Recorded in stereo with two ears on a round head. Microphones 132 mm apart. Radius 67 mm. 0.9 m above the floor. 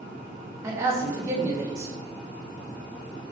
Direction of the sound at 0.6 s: 20° right (ahead or behind).